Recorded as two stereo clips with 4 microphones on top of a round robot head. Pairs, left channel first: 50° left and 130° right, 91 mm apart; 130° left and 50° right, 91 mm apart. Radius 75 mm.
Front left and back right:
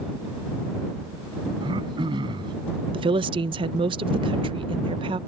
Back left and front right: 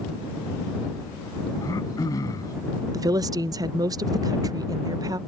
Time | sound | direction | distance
1.6 | throat clearing | 170° right | ?
2.9 | a woman speaking | 100° right | ?